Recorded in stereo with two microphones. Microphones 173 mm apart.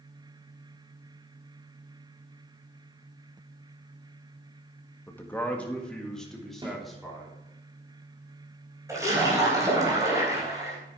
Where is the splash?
15° right (ahead or behind), 4 m.